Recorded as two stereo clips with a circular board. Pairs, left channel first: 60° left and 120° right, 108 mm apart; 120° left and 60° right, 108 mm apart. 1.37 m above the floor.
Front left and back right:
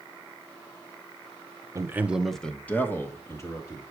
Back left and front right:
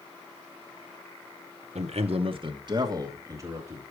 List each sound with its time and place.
1.8 s a man speaking: 60° right, 0.8 m; by 3.8 s straight ahead, 2.5 m